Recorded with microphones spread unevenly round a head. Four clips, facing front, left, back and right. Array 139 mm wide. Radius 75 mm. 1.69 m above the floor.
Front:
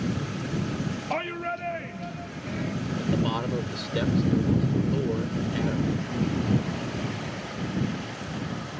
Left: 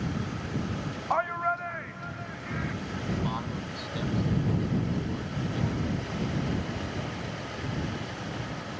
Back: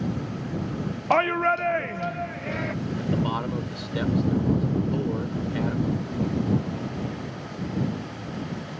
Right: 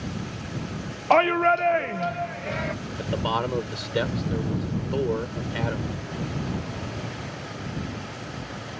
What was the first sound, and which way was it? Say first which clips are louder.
A shout: right 9 dB, back 12 dB; 110° right.